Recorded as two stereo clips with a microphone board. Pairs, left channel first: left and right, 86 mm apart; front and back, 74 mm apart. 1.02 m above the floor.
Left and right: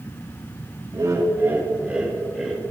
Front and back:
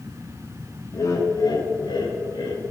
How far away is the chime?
No chime in this recording.